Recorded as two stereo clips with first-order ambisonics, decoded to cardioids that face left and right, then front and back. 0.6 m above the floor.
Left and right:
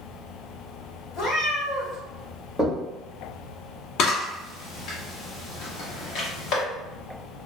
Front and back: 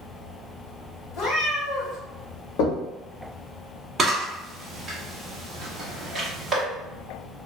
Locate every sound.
1.1 s a cat meowing: 50° left, 0.8 m
2.6 s knocking: 5° left, 0.7 m
4.0 s a camera shutter: 105° left, 0.9 m